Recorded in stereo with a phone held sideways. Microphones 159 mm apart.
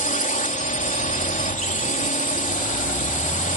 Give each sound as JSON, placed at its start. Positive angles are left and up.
{"t": 0.0, "sound": "a drone", "side_deg": 55}